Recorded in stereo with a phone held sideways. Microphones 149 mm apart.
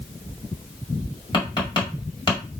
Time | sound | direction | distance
1.3 | tapping | 35° left (ahead or behind) | 1.8 m